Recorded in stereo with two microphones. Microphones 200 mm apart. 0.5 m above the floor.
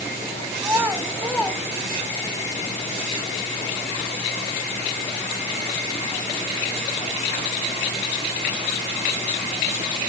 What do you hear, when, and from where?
0.6 s a child speaking: 15° right (ahead or behind), 3 m; by 2.3 s 35° left (ahead or behind), 2 m